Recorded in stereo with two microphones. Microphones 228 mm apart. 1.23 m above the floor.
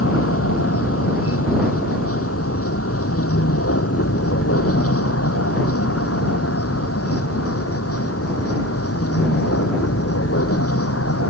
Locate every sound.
0.0 s a vehicle: 75° left (ahead or behind); by 11.3 s 90° left